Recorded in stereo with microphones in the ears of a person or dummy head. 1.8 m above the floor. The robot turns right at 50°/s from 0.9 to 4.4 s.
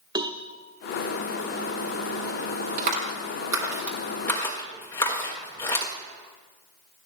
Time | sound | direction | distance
0.1 | a cowbell | 25° right (ahead or behind) | 0.9 m
2.8 | a clap | 60° right (ahead or behind) | 4 m